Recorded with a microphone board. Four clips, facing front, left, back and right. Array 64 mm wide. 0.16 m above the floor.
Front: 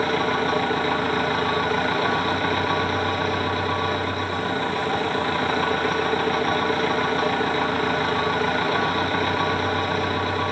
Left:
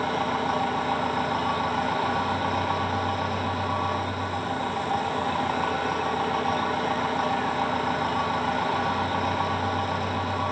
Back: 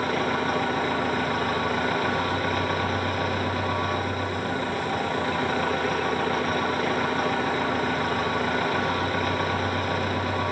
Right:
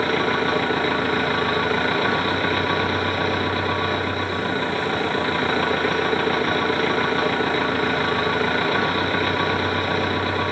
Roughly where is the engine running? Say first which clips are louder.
Right 5 dB, front 3 dB; right.